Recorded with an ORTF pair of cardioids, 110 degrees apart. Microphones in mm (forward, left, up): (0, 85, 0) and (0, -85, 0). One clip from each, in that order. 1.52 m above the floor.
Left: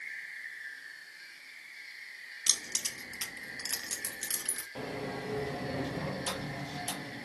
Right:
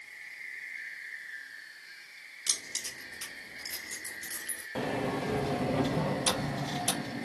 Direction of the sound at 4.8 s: 40° right.